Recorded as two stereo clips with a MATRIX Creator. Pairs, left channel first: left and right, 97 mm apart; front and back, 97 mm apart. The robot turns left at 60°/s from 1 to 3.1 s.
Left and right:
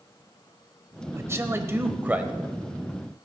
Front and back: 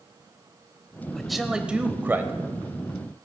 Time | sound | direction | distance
1.1 | a man speaking | 80° right | 1.0 m